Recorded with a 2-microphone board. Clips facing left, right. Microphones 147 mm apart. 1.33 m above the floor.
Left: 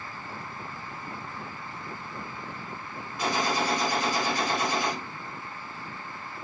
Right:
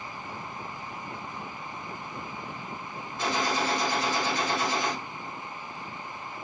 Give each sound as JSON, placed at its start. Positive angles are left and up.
{"t": 3.2, "sound": "a gunshot", "side_deg": 15, "distance_m": 3.5}